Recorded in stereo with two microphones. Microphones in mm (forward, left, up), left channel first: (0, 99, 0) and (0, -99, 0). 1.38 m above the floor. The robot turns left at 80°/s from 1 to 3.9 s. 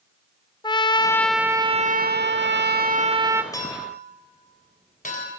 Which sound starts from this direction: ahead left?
A trumpet, at 0.6 s.